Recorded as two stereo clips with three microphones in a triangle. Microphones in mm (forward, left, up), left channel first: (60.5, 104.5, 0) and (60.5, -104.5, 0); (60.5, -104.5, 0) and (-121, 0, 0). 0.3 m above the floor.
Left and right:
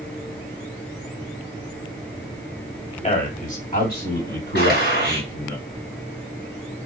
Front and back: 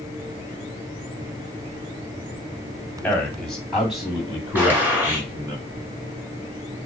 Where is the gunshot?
70° left, 2.5 m.